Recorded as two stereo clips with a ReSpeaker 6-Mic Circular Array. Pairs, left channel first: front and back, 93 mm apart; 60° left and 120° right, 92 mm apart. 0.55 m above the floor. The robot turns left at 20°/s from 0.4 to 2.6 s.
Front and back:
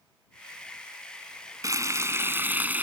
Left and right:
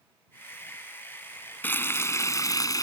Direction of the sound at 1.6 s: 130° left.